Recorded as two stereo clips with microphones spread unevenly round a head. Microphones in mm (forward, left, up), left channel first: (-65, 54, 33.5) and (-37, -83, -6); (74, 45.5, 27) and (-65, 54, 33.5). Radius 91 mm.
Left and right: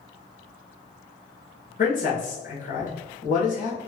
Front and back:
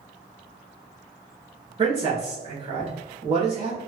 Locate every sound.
1.8 s a man speaking: 130° left, 1.8 m